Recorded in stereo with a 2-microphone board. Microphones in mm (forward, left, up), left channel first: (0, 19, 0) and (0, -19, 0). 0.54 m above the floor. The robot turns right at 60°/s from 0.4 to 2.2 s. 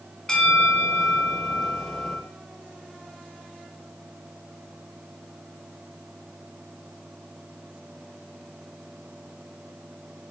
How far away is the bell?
About 0.8 m.